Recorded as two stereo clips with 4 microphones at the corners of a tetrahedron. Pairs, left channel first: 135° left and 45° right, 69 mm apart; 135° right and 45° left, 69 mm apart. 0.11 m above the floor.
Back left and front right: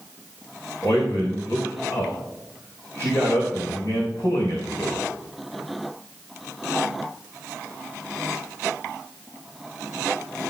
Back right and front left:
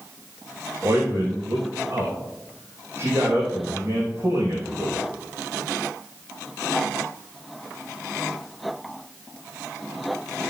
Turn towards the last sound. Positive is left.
turn(degrees=100)